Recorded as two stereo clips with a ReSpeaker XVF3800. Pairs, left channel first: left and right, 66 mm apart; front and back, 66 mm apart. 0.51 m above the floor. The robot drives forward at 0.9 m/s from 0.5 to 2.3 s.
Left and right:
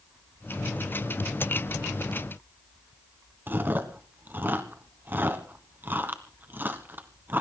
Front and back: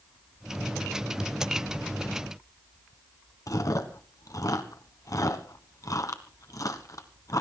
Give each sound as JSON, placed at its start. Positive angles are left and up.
{"t": 3.5, "sound": "chewing", "azimuth_deg": -30, "distance_m": 1.4}